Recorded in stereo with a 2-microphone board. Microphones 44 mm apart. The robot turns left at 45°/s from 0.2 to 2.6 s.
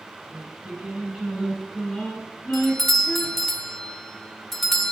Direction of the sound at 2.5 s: 5° left (ahead or behind).